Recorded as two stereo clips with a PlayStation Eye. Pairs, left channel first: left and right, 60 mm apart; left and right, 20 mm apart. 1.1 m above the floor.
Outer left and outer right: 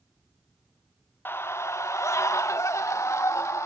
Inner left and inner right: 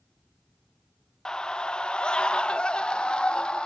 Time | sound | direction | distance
1.2 | a scream | 35° left (ahead or behind) | 0.7 m